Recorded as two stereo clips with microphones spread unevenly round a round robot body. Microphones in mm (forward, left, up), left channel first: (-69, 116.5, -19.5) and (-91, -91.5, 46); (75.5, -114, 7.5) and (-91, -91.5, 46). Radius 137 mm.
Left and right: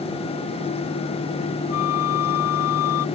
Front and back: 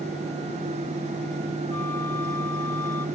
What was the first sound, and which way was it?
A flute, 75° left.